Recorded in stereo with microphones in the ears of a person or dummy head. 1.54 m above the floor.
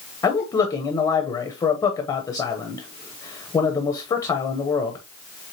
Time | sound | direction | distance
0.2 | a man speaking | 20° left (ahead or behind) | 0.8 m